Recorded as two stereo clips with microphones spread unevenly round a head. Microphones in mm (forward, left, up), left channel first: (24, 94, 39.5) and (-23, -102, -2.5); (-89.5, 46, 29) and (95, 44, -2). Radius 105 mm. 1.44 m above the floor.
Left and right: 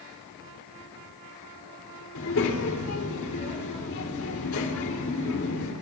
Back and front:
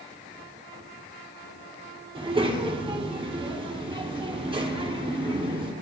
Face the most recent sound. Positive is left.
turn(degrees=65)